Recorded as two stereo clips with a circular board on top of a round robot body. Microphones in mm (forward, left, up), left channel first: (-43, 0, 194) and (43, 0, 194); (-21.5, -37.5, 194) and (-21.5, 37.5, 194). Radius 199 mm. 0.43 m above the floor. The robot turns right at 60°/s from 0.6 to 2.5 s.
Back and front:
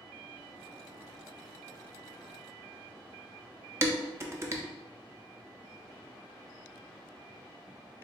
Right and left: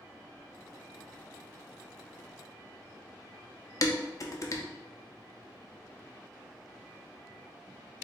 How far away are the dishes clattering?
About 0.7 m.